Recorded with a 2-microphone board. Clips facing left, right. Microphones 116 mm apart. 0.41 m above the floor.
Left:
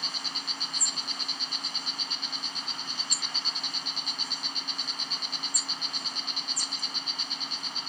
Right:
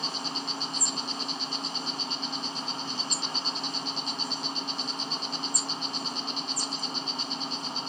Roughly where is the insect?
Right.